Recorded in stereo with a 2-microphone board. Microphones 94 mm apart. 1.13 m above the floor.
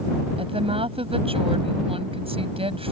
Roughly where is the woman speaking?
Right.